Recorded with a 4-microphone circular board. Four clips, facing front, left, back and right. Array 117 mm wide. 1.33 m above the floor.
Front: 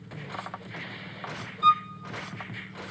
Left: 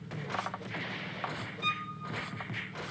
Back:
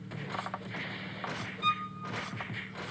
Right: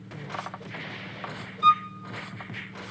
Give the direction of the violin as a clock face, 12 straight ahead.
2 o'clock.